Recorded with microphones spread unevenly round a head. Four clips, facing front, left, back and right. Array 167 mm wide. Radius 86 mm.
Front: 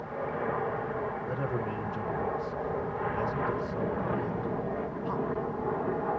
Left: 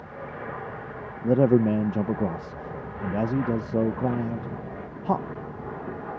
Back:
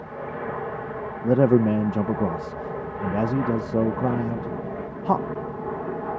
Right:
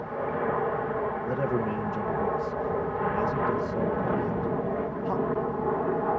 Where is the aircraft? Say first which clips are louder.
Right 8 dB, back 1 dB; 95° right.